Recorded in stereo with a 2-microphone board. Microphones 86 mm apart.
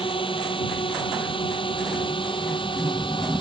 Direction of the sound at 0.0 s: 85° left.